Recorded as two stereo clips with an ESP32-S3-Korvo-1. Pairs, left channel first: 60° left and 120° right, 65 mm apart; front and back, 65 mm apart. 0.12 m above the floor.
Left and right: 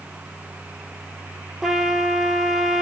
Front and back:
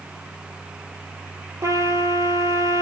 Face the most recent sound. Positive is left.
turn(degrees=155)